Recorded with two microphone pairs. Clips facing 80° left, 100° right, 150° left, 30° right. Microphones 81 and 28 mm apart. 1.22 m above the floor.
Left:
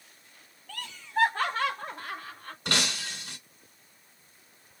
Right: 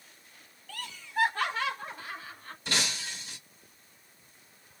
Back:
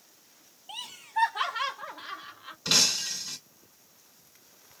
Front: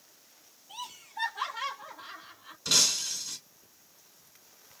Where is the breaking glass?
85° left, 1.7 m.